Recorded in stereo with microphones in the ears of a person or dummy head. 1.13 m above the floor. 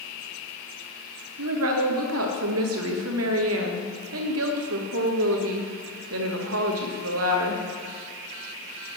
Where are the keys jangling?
I don't hear keys jangling.